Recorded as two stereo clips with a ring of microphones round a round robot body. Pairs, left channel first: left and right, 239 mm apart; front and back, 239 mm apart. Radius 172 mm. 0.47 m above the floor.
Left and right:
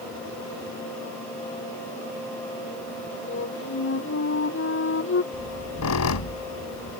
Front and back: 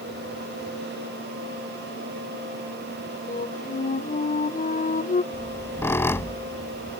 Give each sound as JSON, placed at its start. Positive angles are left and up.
{"t": 3.3, "sound": "a flute", "azimuth_deg": 55}
{"t": 5.3, "sound": "a squeak", "azimuth_deg": 80}